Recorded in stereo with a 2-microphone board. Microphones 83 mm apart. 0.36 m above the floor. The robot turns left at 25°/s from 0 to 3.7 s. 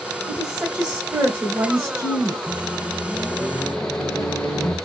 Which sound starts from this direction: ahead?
A woman speaking, at 0.3 s.